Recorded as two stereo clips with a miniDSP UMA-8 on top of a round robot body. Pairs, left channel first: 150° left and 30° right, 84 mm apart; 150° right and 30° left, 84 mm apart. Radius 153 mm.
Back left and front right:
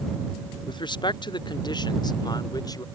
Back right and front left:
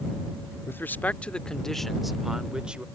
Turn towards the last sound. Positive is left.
turn(degrees=110)